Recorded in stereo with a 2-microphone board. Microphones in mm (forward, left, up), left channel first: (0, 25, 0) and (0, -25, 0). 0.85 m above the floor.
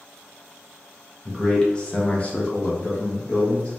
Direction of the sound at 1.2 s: 10° left (ahead or behind).